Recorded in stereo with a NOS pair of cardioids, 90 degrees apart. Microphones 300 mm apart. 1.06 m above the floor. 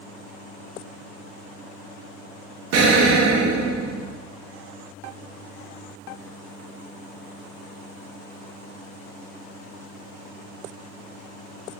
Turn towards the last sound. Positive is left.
turn(degrees=-60)